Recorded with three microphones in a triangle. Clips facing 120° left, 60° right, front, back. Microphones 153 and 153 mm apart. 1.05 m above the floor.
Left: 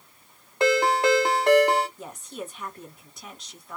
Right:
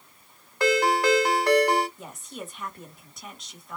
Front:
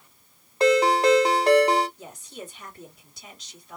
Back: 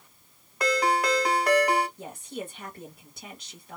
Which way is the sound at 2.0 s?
150° right.